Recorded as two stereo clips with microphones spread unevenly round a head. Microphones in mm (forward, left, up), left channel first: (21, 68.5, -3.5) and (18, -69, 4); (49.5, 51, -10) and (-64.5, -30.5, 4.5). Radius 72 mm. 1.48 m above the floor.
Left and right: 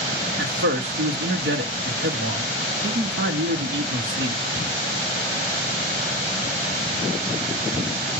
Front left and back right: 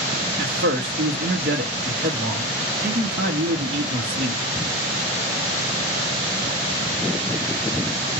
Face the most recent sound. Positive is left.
turn(degrees=-105)